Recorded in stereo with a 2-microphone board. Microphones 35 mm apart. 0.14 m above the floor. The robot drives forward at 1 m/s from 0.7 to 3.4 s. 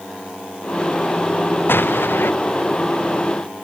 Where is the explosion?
85° left; by 2.3 s 80° left.